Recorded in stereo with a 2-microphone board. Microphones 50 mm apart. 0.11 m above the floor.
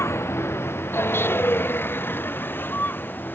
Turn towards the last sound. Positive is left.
turn(degrees=45)  # may be behind; listen again after turning